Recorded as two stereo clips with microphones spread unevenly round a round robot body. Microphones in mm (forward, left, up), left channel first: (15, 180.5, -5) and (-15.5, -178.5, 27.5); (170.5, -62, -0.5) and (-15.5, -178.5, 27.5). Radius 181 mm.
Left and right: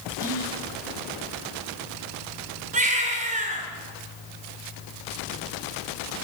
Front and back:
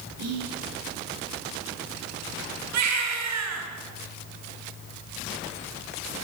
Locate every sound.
0.2 s whispering: 165° right, 8 m
2.7 s a baby crying: 165° right, 5.5 m